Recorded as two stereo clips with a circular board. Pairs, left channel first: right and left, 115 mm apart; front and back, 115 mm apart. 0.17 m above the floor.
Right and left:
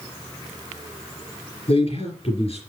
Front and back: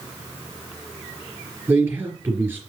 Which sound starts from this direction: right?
A man speaking, at 1.7 s.